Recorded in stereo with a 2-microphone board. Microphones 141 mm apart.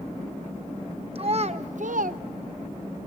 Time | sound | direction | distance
1.1 | a child speaking | 45° right (ahead or behind) | 1.0 m